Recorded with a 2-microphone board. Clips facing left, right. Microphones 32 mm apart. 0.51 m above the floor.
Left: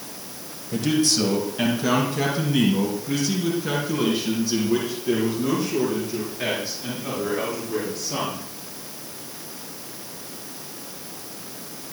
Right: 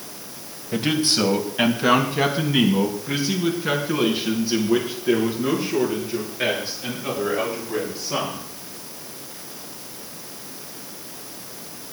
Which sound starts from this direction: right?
A man speaking, at 0.7 s.